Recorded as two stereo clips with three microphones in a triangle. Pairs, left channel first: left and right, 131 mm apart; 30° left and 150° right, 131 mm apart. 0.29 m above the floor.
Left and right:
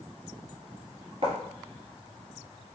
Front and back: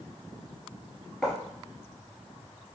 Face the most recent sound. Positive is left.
turn(degrees=-55)